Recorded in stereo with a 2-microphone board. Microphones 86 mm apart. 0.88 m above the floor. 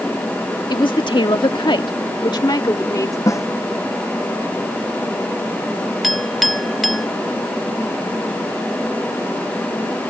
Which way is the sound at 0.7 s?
60° left (ahead or behind).